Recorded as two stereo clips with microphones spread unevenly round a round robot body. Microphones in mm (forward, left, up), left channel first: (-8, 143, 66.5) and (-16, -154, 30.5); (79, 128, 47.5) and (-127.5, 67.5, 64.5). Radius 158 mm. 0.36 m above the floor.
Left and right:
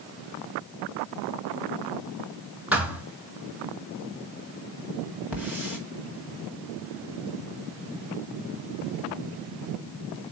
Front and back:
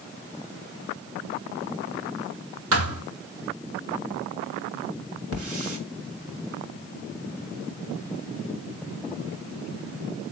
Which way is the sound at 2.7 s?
Straight behind.